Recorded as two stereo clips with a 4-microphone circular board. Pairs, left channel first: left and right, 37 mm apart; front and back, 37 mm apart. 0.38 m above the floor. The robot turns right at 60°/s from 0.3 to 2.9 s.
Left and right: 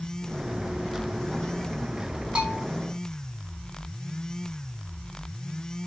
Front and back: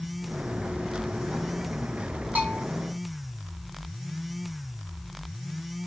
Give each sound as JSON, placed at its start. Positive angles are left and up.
{"t": 2.4, "sound": "a bell", "azimuth_deg": -150, "distance_m": 3.5}